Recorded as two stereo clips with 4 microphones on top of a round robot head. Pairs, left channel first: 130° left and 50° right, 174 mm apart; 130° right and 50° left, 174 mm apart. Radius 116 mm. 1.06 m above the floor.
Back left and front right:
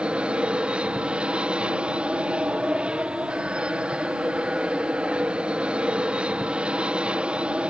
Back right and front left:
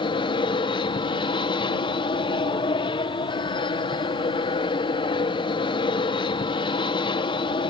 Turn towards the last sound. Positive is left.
turn(degrees=-125)